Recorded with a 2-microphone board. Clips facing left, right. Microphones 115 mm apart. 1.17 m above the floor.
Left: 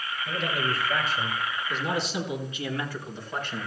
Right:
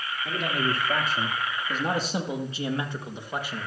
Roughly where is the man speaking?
Right.